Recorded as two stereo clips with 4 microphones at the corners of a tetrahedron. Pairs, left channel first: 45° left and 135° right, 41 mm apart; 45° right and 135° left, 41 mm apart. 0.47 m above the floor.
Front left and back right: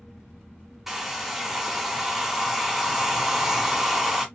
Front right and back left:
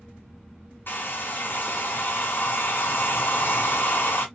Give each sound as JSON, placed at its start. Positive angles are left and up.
{"t": 0.9, "sound": "a hair dryer", "azimuth_deg": -55, "distance_m": 0.9}